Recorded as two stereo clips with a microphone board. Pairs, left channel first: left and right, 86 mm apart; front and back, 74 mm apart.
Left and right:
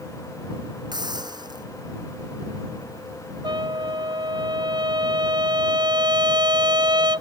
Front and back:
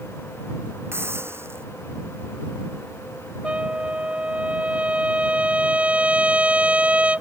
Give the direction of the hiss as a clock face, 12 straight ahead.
4 o'clock.